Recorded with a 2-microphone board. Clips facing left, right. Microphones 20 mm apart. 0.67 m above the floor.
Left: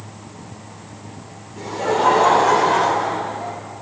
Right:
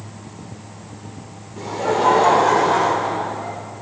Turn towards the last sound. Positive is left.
turn(degrees=15)  # may be behind; listen again after turning